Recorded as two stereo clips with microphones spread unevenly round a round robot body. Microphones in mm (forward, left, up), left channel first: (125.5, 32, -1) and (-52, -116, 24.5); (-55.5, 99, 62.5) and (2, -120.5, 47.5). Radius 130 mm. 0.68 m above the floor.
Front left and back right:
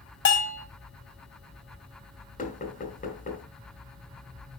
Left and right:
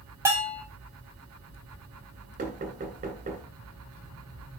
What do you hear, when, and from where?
0.2 s a bell: 5° left, 5 m
2.4 s knocking: 15° right, 2.5 m